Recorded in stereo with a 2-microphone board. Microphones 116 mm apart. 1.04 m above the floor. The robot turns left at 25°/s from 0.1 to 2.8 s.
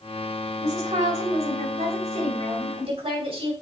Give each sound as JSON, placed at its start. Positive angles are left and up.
{"t": 0.6, "sound": "a woman speaking", "azimuth_deg": -70, "distance_m": 3.0}